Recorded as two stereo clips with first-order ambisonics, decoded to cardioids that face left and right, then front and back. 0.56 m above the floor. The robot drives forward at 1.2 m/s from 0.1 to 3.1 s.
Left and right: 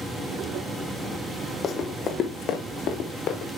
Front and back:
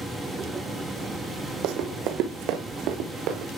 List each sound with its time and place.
1.6 s running footsteps: 160° left, 1.2 m; by 3.5 s 140° left, 2.5 m